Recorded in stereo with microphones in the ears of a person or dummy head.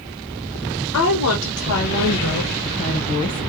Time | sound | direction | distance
0.9 | a woman speaking | 80° left | 1.7 m